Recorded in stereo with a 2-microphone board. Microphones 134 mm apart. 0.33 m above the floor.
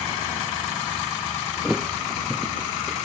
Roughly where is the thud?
Centre.